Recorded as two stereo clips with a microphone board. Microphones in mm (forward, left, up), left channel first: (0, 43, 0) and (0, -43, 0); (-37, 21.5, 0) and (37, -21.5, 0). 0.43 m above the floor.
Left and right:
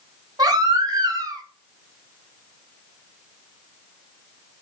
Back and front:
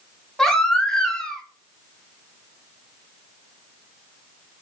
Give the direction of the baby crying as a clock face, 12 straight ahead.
4 o'clock.